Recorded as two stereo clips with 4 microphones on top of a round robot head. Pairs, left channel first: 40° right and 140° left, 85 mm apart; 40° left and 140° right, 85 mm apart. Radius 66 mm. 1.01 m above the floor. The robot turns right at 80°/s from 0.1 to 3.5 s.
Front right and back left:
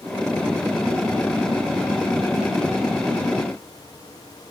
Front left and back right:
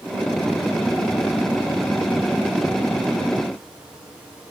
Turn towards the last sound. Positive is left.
No sound to turn to.